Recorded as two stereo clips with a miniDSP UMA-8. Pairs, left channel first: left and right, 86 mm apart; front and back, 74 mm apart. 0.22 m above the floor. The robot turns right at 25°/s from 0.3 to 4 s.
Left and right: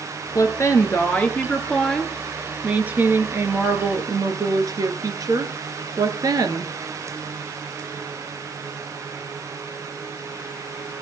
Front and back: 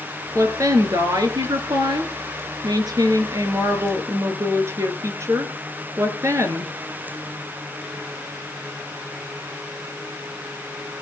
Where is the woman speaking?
135° left, 3 m; by 6.7 s 130° right, 3 m.